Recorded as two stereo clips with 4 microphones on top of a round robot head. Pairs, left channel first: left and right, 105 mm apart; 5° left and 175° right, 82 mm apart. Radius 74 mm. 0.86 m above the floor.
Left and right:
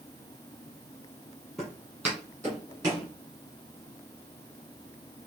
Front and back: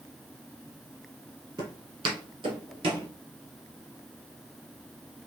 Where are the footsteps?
Straight behind, 1.2 m; by 3.1 s 155° right, 1.9 m.